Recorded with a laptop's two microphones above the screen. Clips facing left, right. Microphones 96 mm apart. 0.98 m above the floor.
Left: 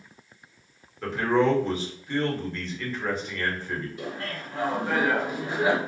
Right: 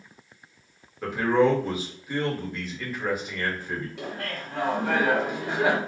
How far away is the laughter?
About 1.1 m.